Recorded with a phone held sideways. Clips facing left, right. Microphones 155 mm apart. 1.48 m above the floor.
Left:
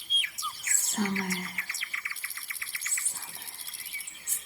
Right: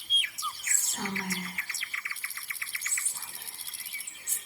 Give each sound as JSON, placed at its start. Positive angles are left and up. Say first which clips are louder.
{"t": 0.6, "sound": "whispering", "louder": "left 8 dB", "side_deg": 55, "distance_m": 0.9}